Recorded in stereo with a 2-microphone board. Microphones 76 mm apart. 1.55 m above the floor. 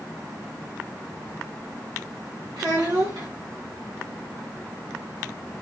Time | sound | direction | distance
2.6 | a child speaking | 80° right | 1.5 m